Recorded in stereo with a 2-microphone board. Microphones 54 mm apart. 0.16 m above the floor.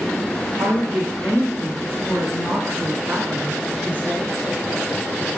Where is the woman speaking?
65° right (ahead or behind), 2.5 m; by 4.3 s 15° right (ahead or behind), 1.4 m.